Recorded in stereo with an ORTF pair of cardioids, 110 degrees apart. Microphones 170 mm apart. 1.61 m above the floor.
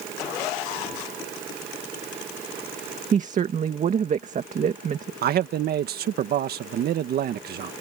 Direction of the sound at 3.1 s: 45° right.